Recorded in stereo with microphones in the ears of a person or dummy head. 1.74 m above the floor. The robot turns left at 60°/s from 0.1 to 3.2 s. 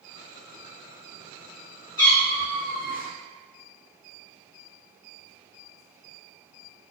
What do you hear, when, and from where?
2.0 s a cat meowing: 30° left, 1.5 m; by 3.1 s 35° right, 1.5 m